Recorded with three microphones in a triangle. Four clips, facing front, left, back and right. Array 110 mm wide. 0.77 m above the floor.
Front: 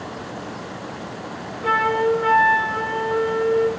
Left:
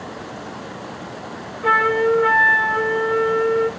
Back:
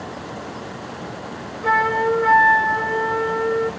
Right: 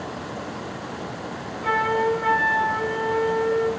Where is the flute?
110° left, 0.9 m.